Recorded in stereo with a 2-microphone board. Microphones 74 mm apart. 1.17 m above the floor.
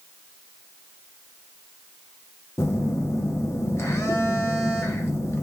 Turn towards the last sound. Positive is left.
turn(degrees=40)  # may be behind; listen again after turning